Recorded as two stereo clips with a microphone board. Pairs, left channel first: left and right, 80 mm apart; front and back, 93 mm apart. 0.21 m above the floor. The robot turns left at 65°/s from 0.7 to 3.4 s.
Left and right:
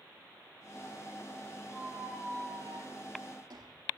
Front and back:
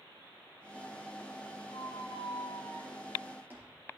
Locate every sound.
1.7 s a squeak: 5° right, 4 m; by 3.9 s 115° right, 4 m